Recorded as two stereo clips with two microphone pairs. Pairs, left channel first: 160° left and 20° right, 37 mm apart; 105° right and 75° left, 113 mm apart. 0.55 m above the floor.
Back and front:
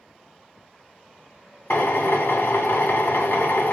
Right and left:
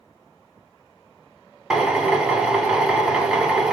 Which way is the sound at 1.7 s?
160° left.